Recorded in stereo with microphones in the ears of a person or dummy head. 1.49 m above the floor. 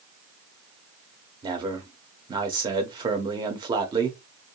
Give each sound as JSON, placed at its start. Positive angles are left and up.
{"t": 1.4, "sound": "a man speaking", "side_deg": -20, "distance_m": 1.3}